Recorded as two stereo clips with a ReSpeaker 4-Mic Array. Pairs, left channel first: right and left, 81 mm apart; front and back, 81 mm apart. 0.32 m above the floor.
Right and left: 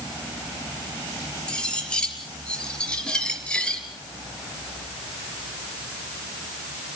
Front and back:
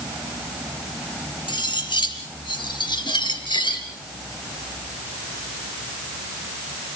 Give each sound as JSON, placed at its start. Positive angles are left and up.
{"t": 1.5, "sound": "cutlery clinking", "azimuth_deg": -10, "distance_m": 3.5}